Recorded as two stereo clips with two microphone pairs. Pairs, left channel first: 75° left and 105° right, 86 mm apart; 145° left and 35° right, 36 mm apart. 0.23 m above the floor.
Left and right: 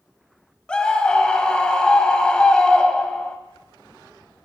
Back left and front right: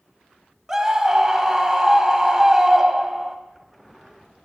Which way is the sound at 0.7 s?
15° left.